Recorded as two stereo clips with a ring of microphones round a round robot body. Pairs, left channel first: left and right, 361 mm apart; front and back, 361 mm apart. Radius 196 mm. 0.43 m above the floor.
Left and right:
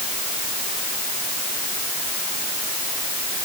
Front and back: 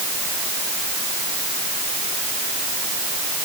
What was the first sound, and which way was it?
Only background noise.